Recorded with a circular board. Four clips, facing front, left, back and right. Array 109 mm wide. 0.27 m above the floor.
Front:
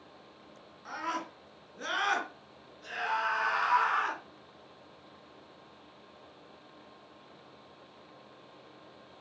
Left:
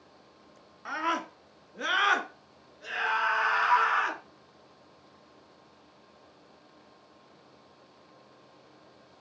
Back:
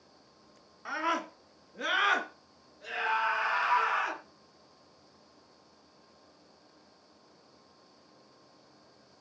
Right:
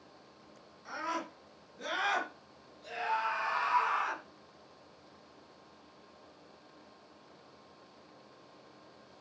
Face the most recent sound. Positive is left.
turn(degrees=85)